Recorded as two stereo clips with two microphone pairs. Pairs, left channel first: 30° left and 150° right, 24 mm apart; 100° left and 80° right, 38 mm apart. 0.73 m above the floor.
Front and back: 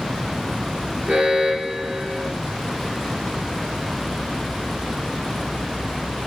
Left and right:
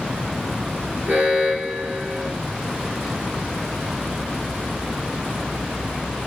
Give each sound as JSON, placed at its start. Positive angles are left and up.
{"t": 1.1, "sound": "an alarm", "azimuth_deg": -130, "distance_m": 2.0}